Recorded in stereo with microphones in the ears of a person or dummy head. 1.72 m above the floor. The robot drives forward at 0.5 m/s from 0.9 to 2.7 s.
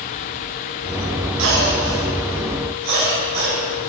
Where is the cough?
65° right (ahead or behind), 1.2 m; by 3.9 s 50° right (ahead or behind), 1.3 m.